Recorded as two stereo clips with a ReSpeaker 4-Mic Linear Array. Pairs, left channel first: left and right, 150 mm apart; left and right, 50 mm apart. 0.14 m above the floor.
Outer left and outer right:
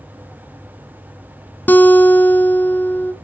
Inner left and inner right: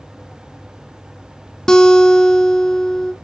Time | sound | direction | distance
1.7 | a guitar | 10° left (ahead or behind) | 0.5 m